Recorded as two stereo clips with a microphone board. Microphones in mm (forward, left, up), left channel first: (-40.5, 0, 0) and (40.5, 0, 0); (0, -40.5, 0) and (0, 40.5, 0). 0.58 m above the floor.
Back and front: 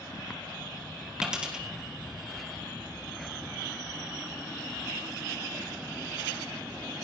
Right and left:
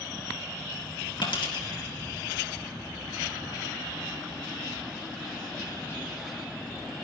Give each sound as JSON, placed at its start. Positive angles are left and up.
{"t": 1.2, "sound": "a dropped coin", "azimuth_deg": -80, "distance_m": 3.0}